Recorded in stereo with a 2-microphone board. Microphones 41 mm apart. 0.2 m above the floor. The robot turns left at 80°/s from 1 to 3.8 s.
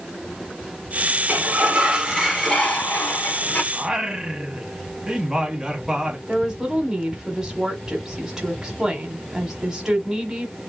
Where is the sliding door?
105° right, 1.0 m; by 3.6 s 70° left, 1.0 m.